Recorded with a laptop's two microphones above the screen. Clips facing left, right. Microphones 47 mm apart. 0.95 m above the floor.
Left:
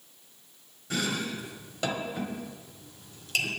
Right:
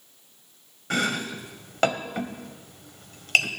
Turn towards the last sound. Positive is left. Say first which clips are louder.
# right 4 dB
turn(degrees=-65)  # may be behind; listen again after turning